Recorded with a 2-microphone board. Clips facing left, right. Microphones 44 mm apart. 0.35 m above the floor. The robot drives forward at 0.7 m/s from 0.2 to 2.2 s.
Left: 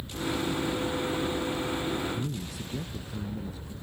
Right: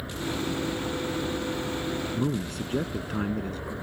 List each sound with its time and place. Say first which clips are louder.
0.0 s an aircraft: even; 75° right (ahead or behind); by 3.8 s 70° right (ahead or behind)
2.1 s a man speaking: right 6 dB; 65° right (ahead or behind)